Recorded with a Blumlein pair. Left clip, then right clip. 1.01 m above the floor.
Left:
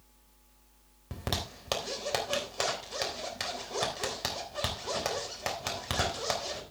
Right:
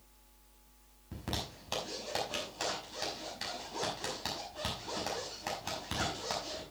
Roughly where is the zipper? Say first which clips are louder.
Left 4 dB; ahead left.